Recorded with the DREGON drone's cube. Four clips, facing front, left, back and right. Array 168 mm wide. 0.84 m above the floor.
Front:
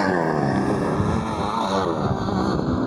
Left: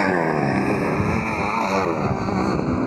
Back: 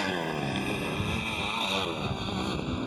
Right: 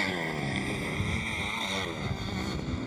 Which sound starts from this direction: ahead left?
A motorcycle, at 0.0 s.